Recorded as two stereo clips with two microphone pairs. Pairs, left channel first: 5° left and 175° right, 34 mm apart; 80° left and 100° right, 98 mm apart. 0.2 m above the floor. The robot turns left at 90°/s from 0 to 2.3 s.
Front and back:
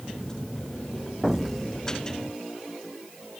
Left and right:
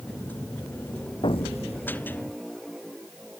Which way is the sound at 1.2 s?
115° left.